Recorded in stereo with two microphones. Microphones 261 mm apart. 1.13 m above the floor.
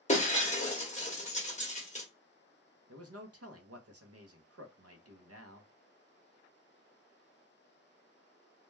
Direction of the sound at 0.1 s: 30° left (ahead or behind).